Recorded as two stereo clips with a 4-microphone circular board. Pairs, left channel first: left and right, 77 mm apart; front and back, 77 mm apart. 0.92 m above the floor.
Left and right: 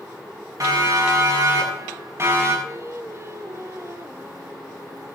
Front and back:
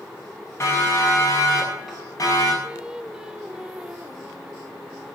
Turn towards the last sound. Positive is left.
turn(degrees=-105)